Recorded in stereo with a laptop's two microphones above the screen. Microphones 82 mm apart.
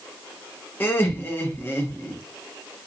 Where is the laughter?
25° left (ahead or behind), 0.7 m.